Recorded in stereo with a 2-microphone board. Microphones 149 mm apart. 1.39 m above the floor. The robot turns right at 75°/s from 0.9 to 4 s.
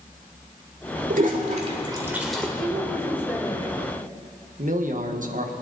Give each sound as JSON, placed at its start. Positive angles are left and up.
{"t": 1.1, "sound": "a toilet flushing", "side_deg": -65, "distance_m": 1.8}
{"t": 2.6, "sound": "a woman speaking", "azimuth_deg": -55, "distance_m": 4.0}
{"t": 4.6, "sound": "a man speaking", "side_deg": -60, "distance_m": 1.4}